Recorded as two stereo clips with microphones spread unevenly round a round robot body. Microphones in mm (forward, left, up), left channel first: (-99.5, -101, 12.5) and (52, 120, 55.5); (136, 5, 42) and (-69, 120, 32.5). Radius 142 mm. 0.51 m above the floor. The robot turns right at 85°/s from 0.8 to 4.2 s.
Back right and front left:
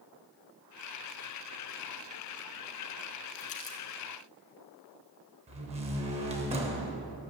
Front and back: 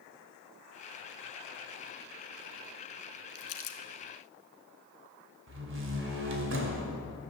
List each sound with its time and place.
3.4 s crumpling: 70° right, 1.1 m; by 3.8 s 35° right, 1.1 m
5.5 s a door slam: 125° left, 2 m